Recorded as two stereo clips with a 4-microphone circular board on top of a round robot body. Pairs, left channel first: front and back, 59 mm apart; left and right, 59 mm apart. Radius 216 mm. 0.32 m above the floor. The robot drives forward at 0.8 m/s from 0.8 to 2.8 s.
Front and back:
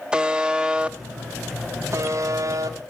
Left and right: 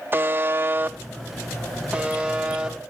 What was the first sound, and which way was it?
A buzzer, 115° right.